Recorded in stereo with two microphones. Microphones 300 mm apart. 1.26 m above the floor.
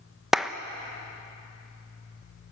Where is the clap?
Centre (ahead or behind), 0.7 m.